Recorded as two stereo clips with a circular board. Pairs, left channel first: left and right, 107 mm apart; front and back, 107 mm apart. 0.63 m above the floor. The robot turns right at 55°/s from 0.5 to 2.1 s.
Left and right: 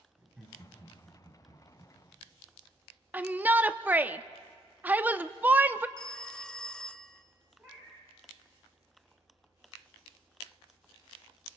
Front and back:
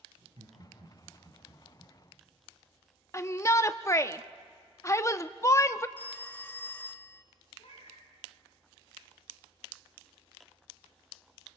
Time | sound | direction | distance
0.2 | laughter | straight behind | 5.5 m
3.1 | a shout | 30° right | 0.7 m
6.0 | a phone ringing | 20° left | 0.6 m
7.6 | a cat meowing | 20° right | 6.5 m